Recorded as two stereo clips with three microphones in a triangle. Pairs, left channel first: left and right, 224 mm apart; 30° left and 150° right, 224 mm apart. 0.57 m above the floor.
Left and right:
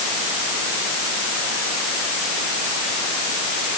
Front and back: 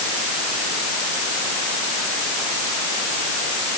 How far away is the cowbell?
I don't hear a cowbell.